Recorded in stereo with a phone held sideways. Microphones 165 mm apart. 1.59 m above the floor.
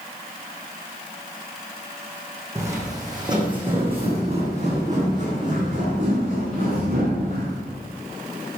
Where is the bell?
I don't hear a bell.